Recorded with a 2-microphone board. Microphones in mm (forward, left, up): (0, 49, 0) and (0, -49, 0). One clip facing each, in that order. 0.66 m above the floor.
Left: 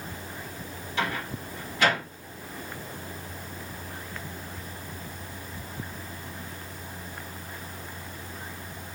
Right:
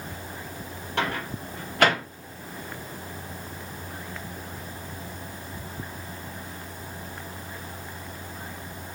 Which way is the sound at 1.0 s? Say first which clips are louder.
Right 2 dB; 60° right (ahead or behind).